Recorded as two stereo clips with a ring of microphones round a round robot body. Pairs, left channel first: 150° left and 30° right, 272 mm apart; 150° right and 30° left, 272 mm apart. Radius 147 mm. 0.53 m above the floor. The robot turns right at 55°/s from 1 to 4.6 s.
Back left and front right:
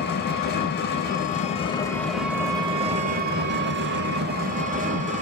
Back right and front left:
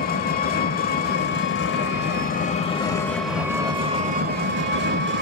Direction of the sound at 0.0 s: 175° left.